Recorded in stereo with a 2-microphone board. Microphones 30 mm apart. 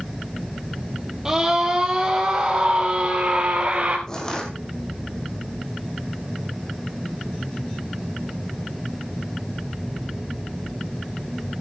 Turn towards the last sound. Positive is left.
turn(degrees=20)  # may be behind; listen again after turning